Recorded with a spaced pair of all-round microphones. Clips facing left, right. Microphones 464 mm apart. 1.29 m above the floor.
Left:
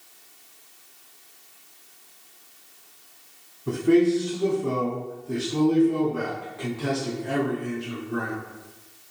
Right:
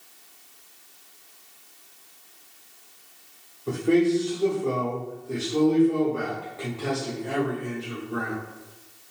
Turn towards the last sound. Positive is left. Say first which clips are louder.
# left 2 dB
turn(degrees=30)  # may be behind; listen again after turning